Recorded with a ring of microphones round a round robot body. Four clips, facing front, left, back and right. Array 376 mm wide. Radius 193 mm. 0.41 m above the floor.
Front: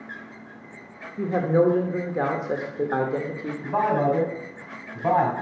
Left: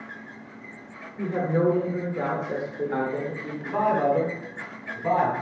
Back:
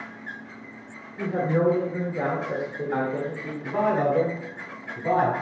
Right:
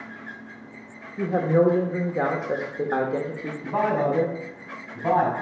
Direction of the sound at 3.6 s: 15° right.